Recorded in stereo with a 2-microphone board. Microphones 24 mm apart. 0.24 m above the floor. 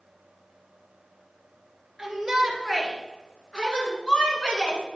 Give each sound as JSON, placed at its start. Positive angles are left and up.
{"t": 2.0, "sound": "a shout", "side_deg": -5, "distance_m": 3.5}